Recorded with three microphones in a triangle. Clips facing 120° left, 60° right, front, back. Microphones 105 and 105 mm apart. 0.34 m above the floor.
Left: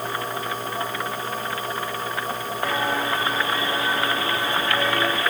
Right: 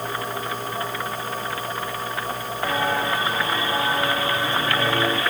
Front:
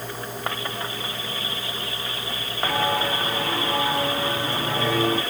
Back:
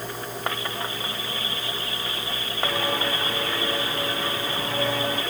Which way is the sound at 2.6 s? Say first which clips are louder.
Right 1 dB, front 3 dB; 25° left.